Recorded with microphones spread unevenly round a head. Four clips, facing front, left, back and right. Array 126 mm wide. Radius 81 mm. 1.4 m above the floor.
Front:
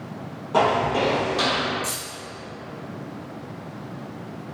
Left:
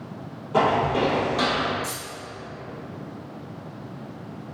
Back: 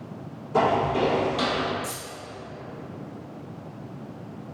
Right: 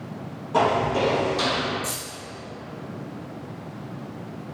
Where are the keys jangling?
130° right, 0.6 m.